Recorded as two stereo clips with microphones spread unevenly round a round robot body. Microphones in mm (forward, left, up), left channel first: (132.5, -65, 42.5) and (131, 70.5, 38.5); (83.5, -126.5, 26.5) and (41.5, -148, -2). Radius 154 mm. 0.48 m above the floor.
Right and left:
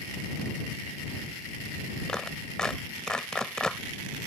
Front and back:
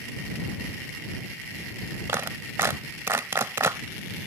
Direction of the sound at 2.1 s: 175° right.